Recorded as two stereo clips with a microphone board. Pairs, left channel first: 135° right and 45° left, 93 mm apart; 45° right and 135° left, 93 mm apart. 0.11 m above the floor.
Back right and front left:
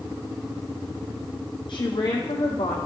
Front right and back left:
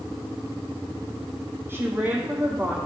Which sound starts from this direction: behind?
A woman speaking, at 1.7 s.